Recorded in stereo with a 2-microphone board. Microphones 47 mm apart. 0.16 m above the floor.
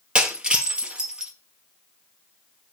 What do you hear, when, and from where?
0.1 s breaking glass: 20° right (ahead or behind), 1.9 m